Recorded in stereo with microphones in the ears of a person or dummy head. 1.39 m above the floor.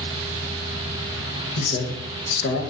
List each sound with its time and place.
1.6 s a man speaking: 60° left (ahead or behind), 0.8 m